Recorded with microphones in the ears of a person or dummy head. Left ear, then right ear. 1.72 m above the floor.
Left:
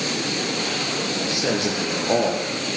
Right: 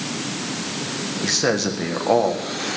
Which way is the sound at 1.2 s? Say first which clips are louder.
Right 5 dB; 50° right (ahead or behind).